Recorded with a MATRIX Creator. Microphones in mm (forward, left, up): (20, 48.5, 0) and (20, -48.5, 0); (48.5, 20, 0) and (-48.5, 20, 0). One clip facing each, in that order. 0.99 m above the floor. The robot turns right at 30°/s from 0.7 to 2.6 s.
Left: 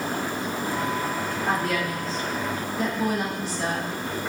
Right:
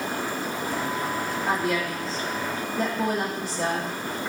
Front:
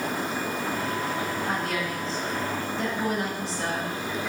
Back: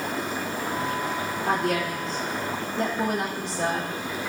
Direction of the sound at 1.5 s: 170° right.